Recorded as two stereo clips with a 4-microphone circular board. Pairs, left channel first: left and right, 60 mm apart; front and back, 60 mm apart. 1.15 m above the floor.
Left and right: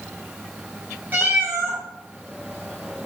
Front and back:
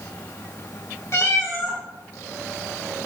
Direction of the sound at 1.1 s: 35° right.